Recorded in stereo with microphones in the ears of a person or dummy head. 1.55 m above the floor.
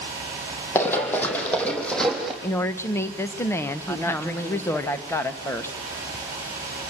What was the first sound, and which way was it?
Running footsteps, 10° left (ahead or behind).